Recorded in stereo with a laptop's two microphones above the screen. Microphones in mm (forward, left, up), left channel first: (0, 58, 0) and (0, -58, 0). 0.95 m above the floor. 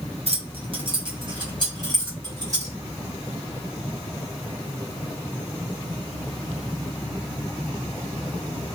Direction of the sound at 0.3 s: 60° right (ahead or behind).